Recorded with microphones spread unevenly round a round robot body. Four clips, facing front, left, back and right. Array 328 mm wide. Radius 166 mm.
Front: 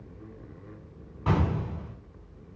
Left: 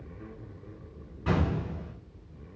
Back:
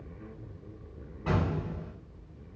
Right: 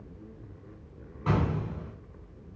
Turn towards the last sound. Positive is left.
turn(degrees=0)